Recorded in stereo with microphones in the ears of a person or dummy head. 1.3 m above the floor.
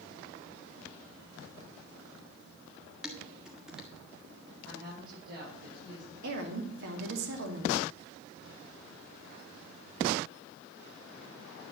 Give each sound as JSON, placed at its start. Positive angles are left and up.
{"t": 3.0, "sound": "dishes clattering", "side_deg": -5, "distance_m": 1.6}
{"t": 4.7, "sound": "a woman speaking", "side_deg": -60, "distance_m": 6.0}
{"t": 6.2, "sound": "a woman speaking", "side_deg": -65, "distance_m": 2.5}